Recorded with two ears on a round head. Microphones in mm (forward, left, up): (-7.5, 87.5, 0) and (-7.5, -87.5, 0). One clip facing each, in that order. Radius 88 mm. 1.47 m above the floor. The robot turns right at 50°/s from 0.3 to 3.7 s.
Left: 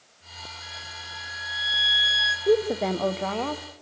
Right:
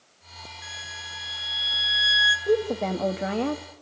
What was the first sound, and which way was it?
A violin, 95° right.